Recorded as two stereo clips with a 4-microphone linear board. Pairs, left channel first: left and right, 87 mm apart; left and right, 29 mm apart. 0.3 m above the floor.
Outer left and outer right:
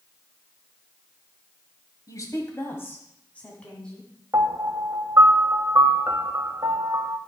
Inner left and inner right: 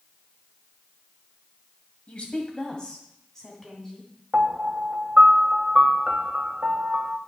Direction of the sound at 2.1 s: 45° left (ahead or behind).